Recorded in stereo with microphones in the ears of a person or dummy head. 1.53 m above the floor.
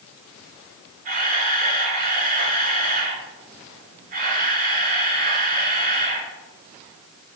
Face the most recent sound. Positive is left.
turn(degrees=-45)  # may be behind; listen again after turning